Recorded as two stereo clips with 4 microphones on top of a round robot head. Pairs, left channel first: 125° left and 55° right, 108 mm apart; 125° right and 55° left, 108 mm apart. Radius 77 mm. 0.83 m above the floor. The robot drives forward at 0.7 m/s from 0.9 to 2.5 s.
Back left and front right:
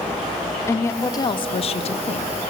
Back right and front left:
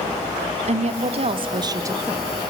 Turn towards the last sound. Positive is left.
turn(degrees=135)